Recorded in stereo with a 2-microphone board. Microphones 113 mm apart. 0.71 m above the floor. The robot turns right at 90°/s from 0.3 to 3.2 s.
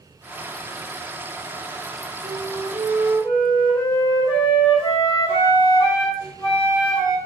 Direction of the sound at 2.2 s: 45° right.